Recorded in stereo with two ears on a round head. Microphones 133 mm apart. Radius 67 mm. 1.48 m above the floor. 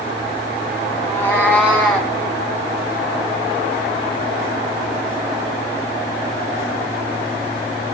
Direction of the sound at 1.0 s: 20° left (ahead or behind).